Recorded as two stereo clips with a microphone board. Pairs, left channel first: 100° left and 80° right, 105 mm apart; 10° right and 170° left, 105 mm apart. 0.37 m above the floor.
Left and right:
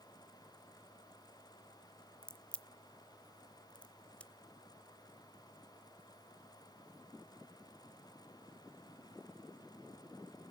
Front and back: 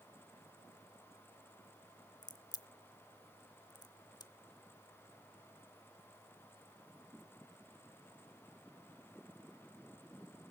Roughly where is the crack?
Ahead left.